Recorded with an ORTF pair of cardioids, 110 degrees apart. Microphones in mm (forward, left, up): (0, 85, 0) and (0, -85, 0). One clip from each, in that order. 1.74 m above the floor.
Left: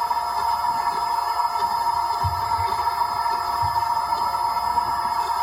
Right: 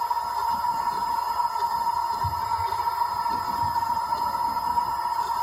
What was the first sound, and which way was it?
A machine running, 20° left.